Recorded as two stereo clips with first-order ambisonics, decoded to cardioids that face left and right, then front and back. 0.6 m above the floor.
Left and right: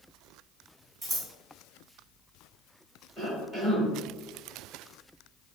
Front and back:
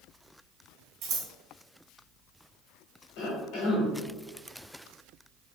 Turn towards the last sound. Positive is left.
turn(degrees=-5)